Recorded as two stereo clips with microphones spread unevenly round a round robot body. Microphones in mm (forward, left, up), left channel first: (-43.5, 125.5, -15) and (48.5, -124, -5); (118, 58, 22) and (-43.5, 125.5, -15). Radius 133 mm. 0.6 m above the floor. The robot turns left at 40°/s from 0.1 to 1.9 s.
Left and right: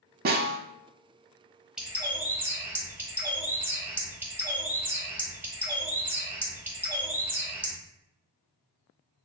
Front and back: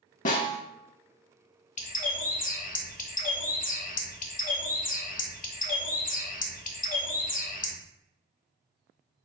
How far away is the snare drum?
About 0.6 m.